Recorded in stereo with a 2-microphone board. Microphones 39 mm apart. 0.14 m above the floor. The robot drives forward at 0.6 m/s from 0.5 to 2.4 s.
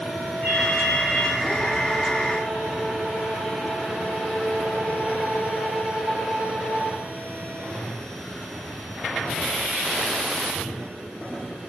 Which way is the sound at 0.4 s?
60° left (ahead or behind).